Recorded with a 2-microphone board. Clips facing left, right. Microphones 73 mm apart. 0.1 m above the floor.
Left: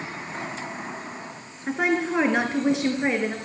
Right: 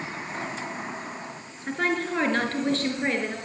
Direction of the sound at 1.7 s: 10° left (ahead or behind).